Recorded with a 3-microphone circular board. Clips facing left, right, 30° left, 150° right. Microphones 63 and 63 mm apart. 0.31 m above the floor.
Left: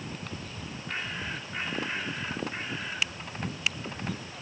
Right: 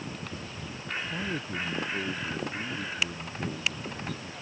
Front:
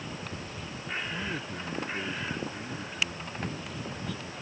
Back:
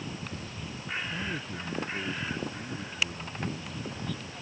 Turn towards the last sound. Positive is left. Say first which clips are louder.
# right 3 dB, even
turn(degrees=-55)